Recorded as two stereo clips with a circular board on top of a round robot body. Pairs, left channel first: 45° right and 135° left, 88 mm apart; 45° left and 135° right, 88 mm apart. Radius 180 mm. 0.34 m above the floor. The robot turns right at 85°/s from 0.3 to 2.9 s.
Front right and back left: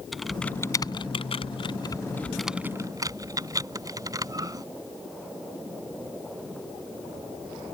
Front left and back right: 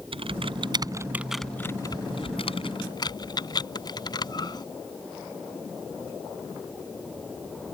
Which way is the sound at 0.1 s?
135° right.